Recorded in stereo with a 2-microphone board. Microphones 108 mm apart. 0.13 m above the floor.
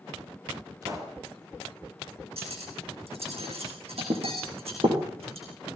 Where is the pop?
35° right (ahead or behind), 4 m.